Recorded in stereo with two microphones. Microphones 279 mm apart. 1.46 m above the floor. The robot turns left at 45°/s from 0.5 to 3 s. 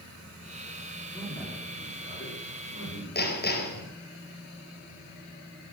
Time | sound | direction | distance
1.1 | a man speaking | straight behind | 4.5 m
3.1 | hammering | 35° left (ahead or behind) | 3 m